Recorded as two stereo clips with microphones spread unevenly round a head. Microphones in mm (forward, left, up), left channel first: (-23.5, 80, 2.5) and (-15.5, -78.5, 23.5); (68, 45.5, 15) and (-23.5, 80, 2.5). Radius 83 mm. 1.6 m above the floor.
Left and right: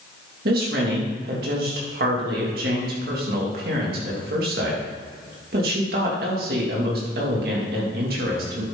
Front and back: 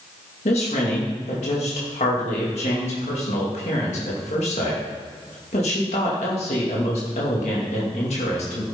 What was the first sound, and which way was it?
A woman speaking, 55° right.